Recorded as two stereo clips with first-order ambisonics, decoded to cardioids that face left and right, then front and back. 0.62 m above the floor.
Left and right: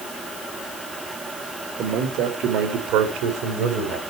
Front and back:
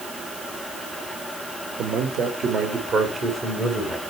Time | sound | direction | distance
1.8 | a man speaking | 135° right | 1.4 m